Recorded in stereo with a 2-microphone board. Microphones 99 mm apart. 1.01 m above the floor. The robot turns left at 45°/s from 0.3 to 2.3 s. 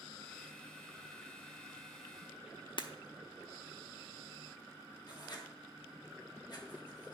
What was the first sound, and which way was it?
Breaking glass, 55° left (ahead or behind).